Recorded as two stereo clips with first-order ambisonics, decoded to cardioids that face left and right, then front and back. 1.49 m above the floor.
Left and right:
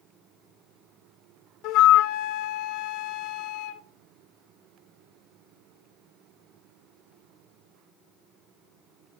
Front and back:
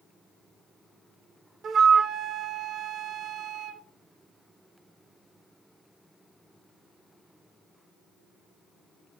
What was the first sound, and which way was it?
A flute, 120° left.